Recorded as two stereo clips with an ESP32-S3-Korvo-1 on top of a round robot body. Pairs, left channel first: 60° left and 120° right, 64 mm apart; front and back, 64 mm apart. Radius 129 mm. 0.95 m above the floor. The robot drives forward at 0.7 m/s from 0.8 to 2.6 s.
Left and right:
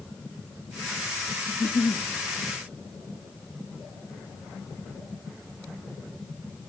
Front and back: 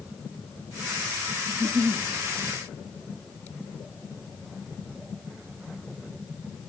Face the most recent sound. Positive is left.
turn(degrees=140)